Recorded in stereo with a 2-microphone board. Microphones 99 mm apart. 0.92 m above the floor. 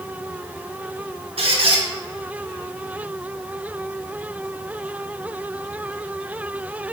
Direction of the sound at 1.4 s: 70° right (ahead or behind).